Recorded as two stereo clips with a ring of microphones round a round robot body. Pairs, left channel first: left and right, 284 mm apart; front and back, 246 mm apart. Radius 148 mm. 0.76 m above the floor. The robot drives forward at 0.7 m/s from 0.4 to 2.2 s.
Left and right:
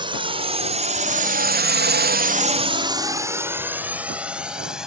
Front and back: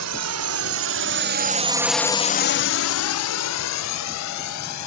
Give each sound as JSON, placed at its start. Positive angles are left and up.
{"t": 0.0, "sound": "a drone", "azimuth_deg": -165}